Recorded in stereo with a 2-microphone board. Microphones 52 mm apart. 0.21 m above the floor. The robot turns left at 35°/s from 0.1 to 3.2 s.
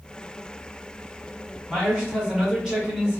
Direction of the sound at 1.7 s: 25° left.